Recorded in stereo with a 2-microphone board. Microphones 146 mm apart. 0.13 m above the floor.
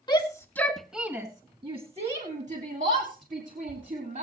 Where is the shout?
30° left (ahead or behind), 1.4 m; by 4.2 s 70° right (ahead or behind), 3.5 m.